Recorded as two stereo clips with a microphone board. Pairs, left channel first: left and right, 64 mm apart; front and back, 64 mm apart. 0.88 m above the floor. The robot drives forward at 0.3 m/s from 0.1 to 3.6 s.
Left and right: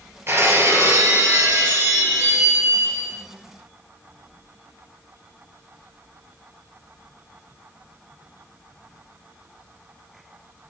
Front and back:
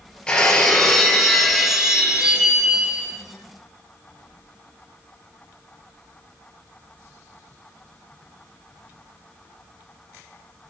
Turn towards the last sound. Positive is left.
turn(degrees=-130)